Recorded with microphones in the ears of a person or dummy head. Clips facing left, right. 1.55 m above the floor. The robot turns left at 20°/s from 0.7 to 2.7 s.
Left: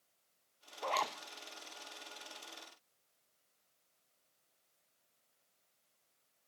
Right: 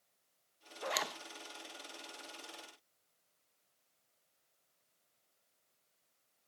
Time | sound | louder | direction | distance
0.8 | a zipper | left 2 dB | 20° right (ahead or behind) | 1.0 m